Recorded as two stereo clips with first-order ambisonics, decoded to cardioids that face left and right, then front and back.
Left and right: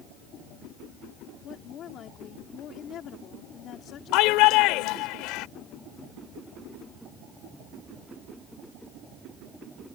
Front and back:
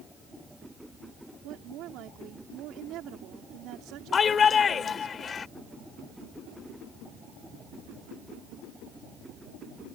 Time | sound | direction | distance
1.4 | a woman speaking | 140° left | ?
4.1 | a shout | 65° left | ?